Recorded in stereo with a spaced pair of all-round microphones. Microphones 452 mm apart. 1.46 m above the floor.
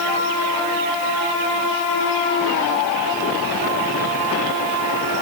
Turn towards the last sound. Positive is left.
No sound to turn to.